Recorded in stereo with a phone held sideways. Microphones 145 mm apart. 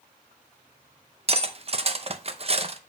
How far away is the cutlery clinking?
About 0.7 m.